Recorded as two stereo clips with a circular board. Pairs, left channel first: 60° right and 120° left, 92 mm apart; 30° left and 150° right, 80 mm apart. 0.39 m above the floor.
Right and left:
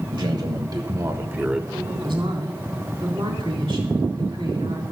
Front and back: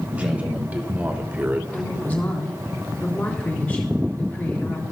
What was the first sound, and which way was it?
A man speaking, 140° left.